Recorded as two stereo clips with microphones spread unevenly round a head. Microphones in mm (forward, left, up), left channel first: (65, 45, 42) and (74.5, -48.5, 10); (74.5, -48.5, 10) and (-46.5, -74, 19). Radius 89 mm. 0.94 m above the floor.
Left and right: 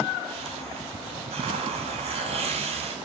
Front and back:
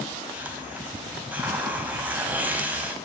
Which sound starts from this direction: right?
A hiss, at 0.3 s.